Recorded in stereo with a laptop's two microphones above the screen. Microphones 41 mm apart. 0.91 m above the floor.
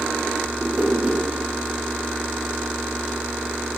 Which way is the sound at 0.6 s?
35° right (ahead or behind).